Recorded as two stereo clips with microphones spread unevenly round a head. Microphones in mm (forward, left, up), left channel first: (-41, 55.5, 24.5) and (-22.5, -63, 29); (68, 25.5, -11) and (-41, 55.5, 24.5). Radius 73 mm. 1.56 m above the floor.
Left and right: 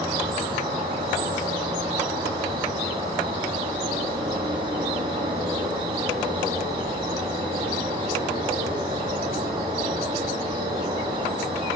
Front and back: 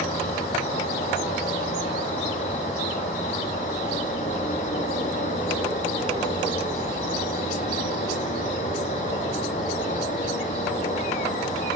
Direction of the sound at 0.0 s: 40° right.